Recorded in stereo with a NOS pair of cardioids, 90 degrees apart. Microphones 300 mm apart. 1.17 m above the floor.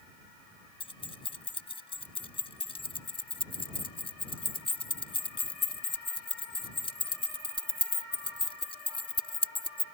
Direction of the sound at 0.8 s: 15° left.